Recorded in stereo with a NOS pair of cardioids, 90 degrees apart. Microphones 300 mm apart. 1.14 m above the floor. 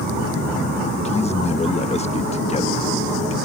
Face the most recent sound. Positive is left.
turn(degrees=20)